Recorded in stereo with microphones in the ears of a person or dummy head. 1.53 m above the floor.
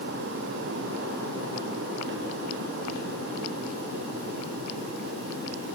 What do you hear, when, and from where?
Only background noise.